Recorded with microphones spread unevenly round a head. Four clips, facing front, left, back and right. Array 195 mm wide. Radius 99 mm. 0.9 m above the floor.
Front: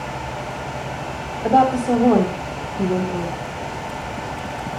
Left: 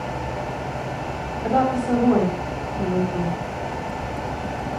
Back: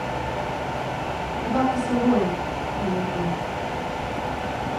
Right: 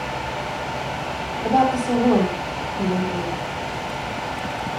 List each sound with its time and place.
1.4 s a woman speaking: straight ahead, 3.5 m